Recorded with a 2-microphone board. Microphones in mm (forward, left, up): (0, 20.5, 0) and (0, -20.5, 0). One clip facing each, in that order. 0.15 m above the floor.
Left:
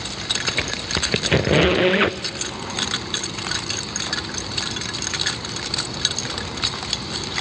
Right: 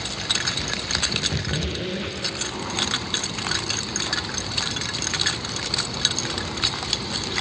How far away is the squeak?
About 0.9 m.